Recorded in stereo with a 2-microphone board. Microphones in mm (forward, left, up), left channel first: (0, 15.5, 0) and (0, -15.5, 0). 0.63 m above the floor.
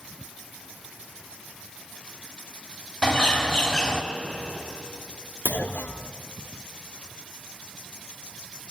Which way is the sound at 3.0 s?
15° left (ahead or behind).